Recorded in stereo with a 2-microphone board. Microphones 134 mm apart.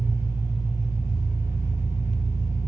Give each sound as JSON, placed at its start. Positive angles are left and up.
{"t": 0.0, "sound": "an engine running", "side_deg": 50, "distance_m": 1.9}